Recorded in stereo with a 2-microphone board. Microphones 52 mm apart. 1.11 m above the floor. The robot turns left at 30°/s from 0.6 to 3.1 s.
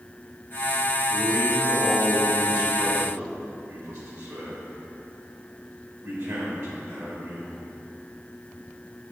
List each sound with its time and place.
1.1 s a man speaking: 20° right (ahead or behind), 3.5 m; by 7.5 s 75° right (ahead or behind), 3.5 m